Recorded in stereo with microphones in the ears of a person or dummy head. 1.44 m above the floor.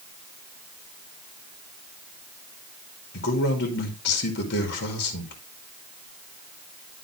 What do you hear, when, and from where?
3.1 s a man speaking: 65° left (ahead or behind), 2 m